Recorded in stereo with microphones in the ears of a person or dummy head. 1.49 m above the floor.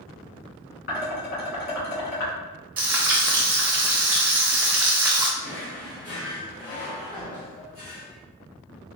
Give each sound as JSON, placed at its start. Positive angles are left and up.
{"t": 0.9, "sound": "dishes clattering", "side_deg": 55, "distance_m": 1.6}
{"t": 2.8, "sound": "frying", "side_deg": -10, "distance_m": 0.7}
{"t": 5.4, "sound": "a drawer", "side_deg": 25, "distance_m": 1.3}